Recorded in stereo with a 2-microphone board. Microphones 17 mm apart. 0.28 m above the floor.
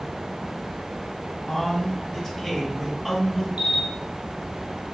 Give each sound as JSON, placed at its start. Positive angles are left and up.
{"t": 1.5, "sound": "a man speaking", "side_deg": 25, "distance_m": 1.4}
{"t": 3.6, "sound": "a camera shutter", "side_deg": -65, "distance_m": 1.0}